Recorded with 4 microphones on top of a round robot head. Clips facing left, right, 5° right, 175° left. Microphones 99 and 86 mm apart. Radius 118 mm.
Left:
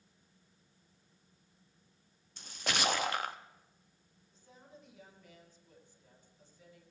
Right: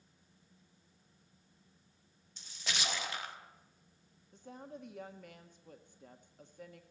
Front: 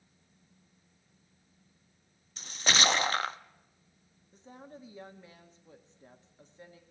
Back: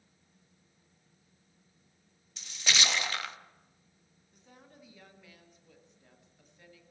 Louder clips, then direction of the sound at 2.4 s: Left 6 dB, front 3 dB; 45° left.